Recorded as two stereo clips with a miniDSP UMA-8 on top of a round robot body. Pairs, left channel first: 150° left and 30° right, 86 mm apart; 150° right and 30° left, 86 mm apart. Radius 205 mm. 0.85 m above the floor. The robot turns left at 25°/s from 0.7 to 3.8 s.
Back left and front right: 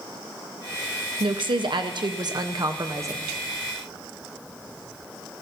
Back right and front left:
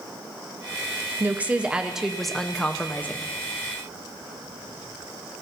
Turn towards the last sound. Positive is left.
turn(degrees=-100)